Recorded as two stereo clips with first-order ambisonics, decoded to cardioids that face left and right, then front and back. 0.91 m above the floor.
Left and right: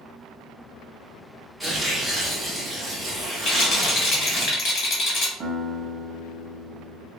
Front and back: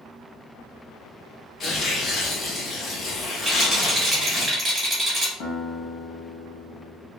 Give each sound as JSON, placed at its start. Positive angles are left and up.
{"t": 1.6, "sound": "tearing paper", "azimuth_deg": -5, "distance_m": 0.7}
{"t": 3.5, "sound": "a rattle", "azimuth_deg": 110, "distance_m": 0.9}
{"t": 5.4, "sound": "a guitar", "azimuth_deg": -20, "distance_m": 0.8}